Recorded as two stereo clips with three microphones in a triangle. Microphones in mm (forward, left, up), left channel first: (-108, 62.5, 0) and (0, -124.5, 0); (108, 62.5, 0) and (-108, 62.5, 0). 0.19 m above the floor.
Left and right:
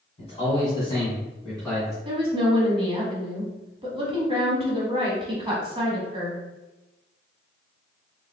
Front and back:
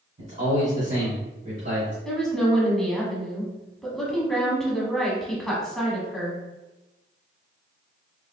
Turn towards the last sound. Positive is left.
turn(degrees=-85)